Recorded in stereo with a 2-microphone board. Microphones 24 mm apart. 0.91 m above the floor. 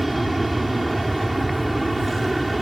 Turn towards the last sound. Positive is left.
turn(degrees=0)  # may be behind; listen again after turning